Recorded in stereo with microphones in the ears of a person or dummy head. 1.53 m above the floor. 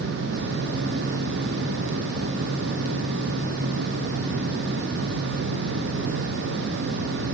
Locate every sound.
Only background noise.